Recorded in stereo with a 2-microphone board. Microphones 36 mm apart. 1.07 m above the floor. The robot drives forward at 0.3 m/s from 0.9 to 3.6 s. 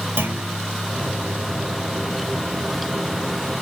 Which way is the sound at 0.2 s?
60° right (ahead or behind).